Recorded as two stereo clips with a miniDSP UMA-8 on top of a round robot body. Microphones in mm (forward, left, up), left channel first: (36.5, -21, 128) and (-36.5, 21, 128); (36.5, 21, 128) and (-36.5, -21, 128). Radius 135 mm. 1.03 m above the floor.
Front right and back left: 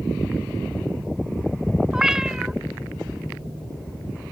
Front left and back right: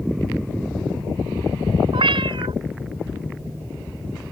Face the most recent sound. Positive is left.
turn(degrees=-130)